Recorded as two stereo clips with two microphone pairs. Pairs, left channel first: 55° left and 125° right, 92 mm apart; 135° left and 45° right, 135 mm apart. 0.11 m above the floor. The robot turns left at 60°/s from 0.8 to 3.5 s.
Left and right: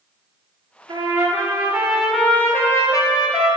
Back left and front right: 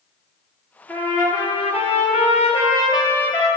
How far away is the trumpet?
About 1.7 m.